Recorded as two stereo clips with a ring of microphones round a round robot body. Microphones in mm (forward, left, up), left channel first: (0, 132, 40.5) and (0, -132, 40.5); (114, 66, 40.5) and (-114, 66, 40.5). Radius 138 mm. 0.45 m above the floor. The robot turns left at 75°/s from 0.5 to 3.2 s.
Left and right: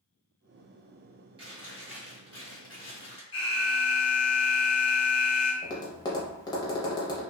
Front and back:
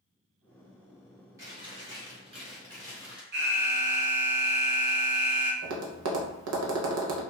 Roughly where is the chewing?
Behind right.